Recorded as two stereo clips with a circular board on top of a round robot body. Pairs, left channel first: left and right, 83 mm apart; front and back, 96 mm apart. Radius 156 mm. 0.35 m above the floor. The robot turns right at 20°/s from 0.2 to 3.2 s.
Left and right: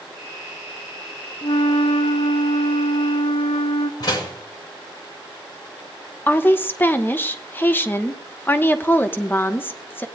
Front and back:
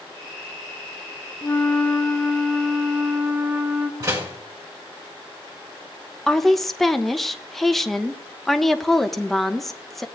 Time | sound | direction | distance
1.4 | a flute | 65° left | 1.0 m
4.0 | a door slam | 130° left | 3 m
6.3 | a woman speaking | 85° left | 1.1 m